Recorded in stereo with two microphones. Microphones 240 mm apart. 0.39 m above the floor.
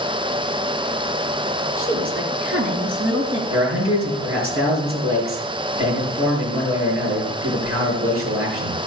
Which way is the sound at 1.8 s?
55° right (ahead or behind).